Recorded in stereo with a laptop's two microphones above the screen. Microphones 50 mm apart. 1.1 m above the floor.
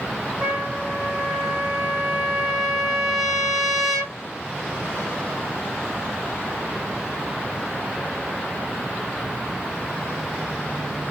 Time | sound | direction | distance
0.4 | a trumpet | 5° right (ahead or behind) | 0.5 m